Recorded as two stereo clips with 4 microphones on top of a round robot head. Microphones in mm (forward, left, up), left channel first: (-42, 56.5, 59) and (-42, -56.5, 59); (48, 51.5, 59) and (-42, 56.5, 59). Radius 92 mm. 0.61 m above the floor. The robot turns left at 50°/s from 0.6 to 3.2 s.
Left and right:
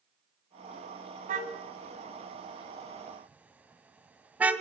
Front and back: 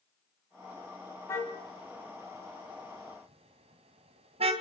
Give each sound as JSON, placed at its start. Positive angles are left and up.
{"t": 1.3, "sound": "a car horn", "azimuth_deg": -70, "distance_m": 3.0}